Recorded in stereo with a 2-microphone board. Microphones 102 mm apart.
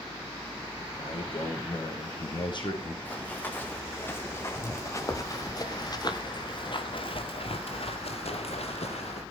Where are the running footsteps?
15° left (ahead or behind), 3 m; by 9.2 s 90° left, 2 m.